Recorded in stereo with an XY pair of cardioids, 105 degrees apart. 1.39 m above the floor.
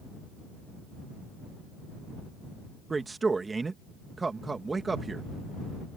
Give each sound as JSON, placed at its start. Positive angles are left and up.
{"t": 2.9, "sound": "a man speaking", "azimuth_deg": -25}